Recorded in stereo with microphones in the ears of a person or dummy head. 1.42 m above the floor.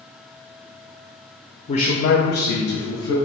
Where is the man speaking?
40° left (ahead or behind), 0.6 m; by 3.2 s 80° left, 1.3 m.